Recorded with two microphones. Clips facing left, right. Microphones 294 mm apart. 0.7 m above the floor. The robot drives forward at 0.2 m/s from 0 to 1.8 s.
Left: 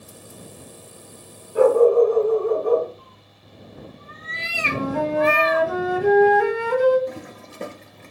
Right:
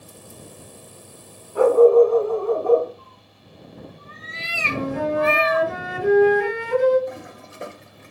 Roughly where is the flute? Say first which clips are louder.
Even; left.